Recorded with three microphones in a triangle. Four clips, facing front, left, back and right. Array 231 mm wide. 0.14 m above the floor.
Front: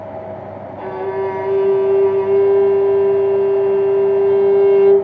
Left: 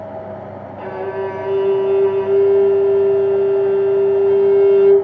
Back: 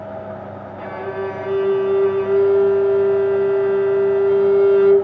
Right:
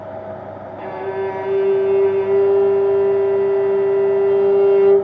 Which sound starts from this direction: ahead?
A violin, at 0.8 s.